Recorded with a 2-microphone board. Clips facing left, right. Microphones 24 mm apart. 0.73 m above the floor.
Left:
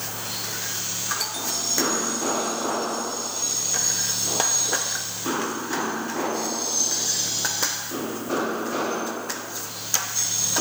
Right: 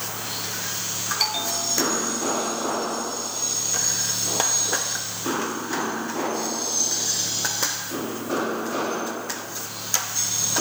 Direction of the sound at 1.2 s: 30° right (ahead or behind).